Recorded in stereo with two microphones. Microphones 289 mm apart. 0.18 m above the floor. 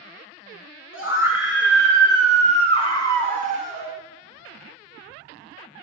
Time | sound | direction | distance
0.9 | a scream | 50° left (ahead or behind) | 2 m